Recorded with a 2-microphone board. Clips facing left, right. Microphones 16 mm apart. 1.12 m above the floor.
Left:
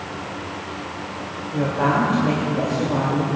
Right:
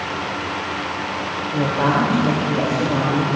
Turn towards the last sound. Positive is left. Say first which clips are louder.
# right 1 dB
turn(degrees=-10)  # may be behind; listen again after turning